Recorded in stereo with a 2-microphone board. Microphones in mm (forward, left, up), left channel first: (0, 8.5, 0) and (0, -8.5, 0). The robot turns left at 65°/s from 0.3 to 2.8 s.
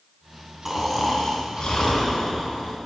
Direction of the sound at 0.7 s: 175° right.